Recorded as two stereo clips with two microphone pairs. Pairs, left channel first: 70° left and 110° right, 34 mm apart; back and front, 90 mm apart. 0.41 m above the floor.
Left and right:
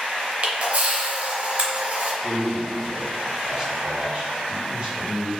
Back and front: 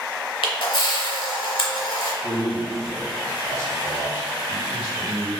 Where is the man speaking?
45° right, 1.5 m.